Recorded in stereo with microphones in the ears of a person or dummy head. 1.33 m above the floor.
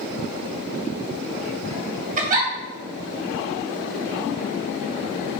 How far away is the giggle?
About 0.8 m.